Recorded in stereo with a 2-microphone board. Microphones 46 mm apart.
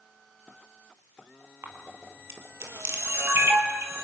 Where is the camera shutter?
70° right (ahead or behind), 3 m.